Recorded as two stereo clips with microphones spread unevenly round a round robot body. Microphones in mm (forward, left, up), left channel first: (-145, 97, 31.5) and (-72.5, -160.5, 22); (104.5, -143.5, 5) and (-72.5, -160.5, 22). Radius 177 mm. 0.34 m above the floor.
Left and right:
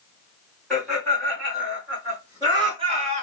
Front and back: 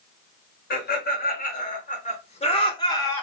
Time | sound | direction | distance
0.7 | laughter | 20° left | 2.0 m